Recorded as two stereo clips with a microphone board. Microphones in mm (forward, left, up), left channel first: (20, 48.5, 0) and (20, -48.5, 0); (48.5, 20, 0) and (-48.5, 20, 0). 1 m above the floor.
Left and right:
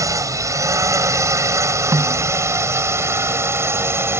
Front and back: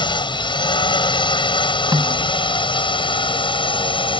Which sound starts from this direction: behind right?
A snare drum, at 1.9 s.